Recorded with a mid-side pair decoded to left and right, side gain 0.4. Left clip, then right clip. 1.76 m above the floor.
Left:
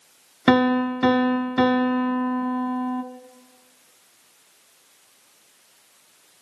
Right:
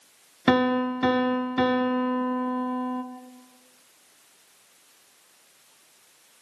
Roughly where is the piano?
Ahead.